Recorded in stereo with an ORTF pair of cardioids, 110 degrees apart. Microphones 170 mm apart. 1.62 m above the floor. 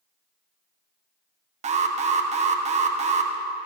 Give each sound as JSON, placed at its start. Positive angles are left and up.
{"t": 1.6, "sound": "an alarm", "azimuth_deg": -40, "distance_m": 1.4}